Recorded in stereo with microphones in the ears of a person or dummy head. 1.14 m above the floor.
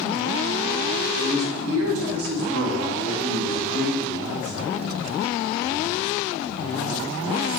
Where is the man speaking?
55° right (ahead or behind), 1.1 m; by 5.0 s 25° right (ahead or behind), 2 m.